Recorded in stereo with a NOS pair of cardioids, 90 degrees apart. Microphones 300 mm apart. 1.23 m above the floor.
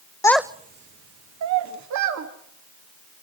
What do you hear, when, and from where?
0.2 s a child speaking: 10° left, 0.7 m; by 2.3 s 70° right, 2.5 m